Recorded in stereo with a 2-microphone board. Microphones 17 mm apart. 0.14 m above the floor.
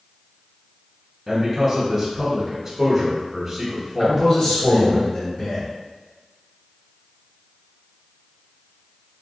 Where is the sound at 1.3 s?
25° right (ahead or behind), 1.3 m.